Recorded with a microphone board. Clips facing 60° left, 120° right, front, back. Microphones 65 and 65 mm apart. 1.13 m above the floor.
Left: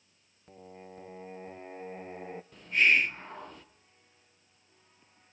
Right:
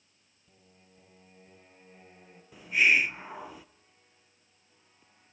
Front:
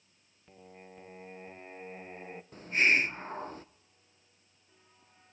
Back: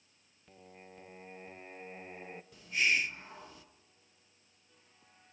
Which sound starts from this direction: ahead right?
A hiss, at 2.5 s.